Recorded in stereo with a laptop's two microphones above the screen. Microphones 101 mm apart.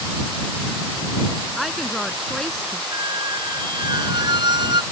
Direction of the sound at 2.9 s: 45° right (ahead or behind).